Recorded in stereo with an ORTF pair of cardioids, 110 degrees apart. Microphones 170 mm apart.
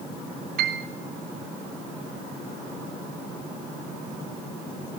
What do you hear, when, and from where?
0.6 s a piano: 65° right, 3.5 m